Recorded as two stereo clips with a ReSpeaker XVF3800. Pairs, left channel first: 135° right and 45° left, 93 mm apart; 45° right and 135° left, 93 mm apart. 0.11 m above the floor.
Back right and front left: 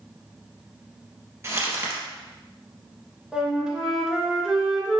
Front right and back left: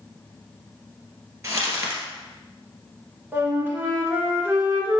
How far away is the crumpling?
About 2 m.